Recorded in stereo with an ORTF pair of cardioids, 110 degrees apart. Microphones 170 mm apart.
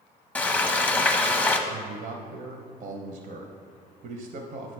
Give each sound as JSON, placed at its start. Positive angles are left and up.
{"t": 0.3, "sound": "frying", "azimuth_deg": 10, "distance_m": 0.8}
{"t": 1.7, "sound": "a man speaking", "azimuth_deg": -55, "distance_m": 0.7}